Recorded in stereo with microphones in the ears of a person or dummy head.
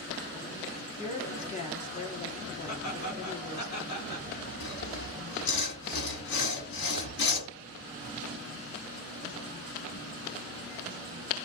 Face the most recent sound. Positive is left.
turn(degrees=65)  # may be behind; listen again after turning